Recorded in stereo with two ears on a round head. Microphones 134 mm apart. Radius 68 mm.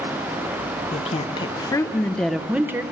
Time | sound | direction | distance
0.9 | a woman speaking | 40° left (ahead or behind) | 1.1 m